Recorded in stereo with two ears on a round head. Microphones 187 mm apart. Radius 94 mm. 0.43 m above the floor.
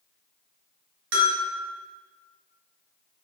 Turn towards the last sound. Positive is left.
turn(degrees=-70)  # may be behind; listen again after turning